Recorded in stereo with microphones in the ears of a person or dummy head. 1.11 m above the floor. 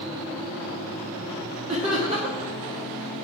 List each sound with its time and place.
1.7 s laughter: 35° right (ahead or behind), 1.6 m